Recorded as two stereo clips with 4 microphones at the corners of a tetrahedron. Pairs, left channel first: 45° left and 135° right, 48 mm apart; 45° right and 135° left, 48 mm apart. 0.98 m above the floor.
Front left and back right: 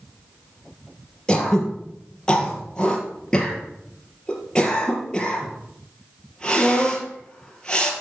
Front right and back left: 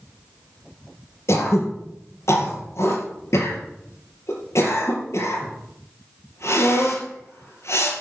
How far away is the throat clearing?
About 3.5 m.